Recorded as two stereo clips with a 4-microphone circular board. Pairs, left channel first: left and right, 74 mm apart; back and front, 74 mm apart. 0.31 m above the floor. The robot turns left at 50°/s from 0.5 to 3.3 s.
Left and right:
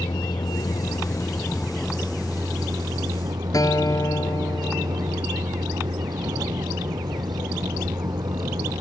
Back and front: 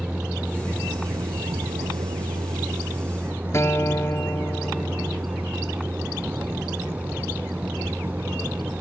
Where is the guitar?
125° left.